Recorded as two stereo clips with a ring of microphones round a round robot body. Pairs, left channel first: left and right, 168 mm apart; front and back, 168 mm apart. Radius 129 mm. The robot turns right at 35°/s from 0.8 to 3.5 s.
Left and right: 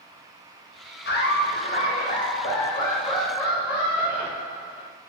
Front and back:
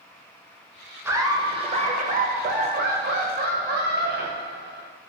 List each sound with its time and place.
1.1 s laughter: 105° left, 0.6 m; by 4.9 s 170° right, 0.6 m